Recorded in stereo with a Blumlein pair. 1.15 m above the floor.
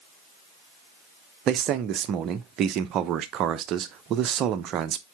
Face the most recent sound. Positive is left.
turn(degrees=-35)